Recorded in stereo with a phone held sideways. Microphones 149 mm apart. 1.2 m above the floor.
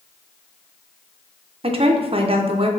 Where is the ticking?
I don't hear ticking.